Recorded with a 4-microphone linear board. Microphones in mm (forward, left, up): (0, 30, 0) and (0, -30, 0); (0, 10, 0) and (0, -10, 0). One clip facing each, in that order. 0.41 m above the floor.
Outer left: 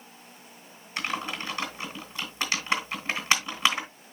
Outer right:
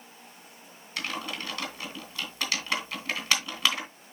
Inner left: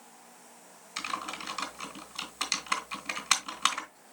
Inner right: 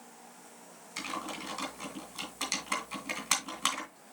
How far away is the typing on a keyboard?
About 2.5 m.